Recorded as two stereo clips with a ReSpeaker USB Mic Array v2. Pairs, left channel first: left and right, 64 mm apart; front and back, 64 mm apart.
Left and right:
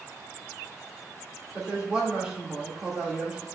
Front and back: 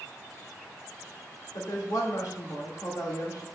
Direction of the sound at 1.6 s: 15° right.